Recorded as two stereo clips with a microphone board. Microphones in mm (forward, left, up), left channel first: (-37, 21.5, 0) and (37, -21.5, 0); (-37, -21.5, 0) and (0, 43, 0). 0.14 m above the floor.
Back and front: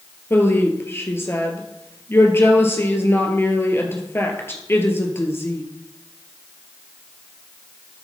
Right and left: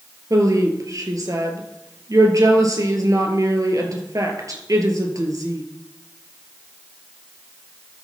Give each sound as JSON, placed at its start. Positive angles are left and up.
{"t": 0.3, "sound": "a woman speaking", "azimuth_deg": 90, "distance_m": 2.5}